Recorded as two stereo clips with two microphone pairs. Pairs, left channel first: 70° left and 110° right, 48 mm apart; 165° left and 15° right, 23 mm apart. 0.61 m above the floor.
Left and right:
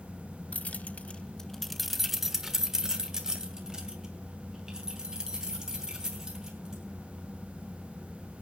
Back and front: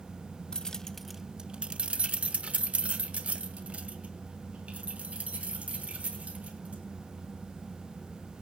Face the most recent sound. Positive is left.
turn(degrees=-35)